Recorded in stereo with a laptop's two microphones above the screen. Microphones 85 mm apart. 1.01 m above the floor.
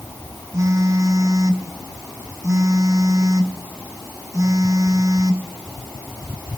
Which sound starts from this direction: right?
A phone buzzing, at 0.5 s.